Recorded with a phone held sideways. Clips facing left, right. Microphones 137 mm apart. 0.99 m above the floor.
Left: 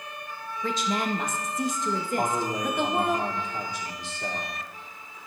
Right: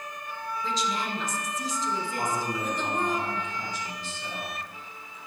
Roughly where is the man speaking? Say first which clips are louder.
Left 2 dB; left.